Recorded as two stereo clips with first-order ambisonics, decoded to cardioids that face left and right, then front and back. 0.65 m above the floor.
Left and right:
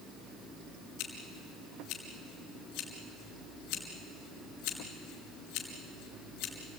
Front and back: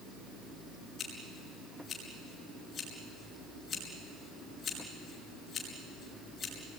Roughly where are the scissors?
Ahead left.